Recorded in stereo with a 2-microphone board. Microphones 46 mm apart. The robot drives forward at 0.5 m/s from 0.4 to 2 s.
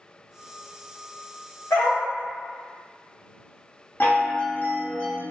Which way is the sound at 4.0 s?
50° left (ahead or behind).